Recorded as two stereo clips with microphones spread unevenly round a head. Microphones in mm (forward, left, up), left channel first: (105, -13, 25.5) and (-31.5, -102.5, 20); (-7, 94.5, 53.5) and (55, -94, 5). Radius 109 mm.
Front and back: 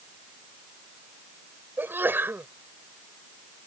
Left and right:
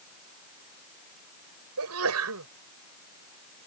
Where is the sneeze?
70° right.